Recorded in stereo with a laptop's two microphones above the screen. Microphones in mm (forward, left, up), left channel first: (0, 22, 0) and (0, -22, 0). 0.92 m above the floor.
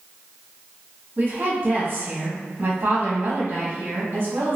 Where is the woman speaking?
50° right (ahead or behind), 0.9 m.